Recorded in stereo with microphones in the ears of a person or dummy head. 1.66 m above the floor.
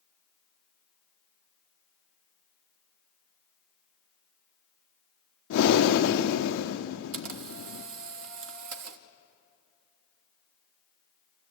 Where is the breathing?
65° left (ahead or behind), 0.7 m.